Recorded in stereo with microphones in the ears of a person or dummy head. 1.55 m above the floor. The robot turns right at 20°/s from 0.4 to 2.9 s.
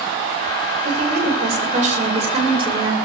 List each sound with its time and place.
0.8 s a woman speaking: 65° right, 5.5 m; by 3.0 s 25° right, 5.5 m